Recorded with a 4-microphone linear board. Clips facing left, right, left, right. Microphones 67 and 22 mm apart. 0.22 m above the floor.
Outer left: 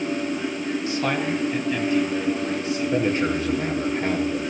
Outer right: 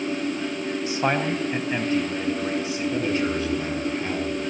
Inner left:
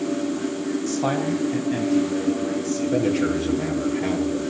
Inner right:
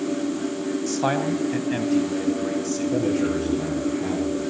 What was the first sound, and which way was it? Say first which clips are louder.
A man speaking: outer right 2 dB, inner right 1 dB; 20° right (ahead or behind).